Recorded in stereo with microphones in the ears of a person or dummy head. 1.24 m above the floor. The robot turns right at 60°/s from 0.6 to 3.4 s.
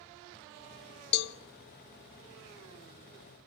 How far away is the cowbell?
About 0.7 m.